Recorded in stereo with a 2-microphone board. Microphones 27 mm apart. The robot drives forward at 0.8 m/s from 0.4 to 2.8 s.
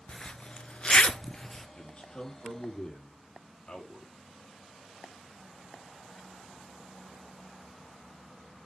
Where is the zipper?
35° left (ahead or behind), 0.5 m; by 1.7 s 20° left (ahead or behind), 0.9 m.